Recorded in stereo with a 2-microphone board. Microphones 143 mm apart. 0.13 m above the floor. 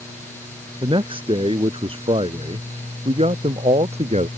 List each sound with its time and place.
0.8 s a man speaking: 35° right (ahead or behind); by 4.3 s 50° right (ahead or behind)